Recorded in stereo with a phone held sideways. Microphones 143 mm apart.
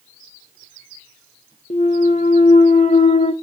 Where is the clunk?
50° left (ahead or behind), 0.6 m.